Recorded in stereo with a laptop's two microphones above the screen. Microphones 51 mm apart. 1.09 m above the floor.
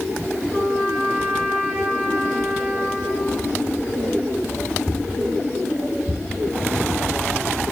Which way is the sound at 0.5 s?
35° right (ahead or behind).